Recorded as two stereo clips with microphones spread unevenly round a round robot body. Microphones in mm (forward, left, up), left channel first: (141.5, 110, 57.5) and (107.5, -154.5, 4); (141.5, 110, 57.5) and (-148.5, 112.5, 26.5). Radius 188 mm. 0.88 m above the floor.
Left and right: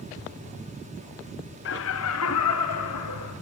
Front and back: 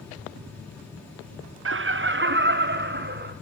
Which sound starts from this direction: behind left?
Laughter, at 1.6 s.